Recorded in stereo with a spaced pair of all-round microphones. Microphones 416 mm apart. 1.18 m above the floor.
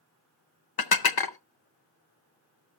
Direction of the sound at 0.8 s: 60° left (ahead or behind).